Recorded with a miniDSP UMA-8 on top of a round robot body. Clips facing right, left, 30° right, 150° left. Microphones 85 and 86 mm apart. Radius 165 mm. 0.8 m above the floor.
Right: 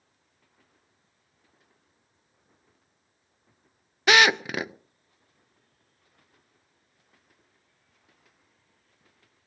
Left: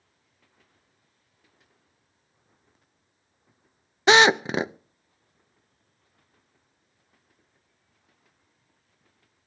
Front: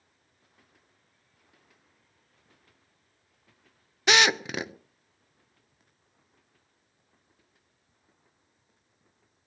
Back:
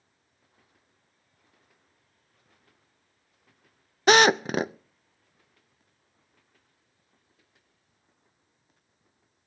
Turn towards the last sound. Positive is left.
turn(degrees=135)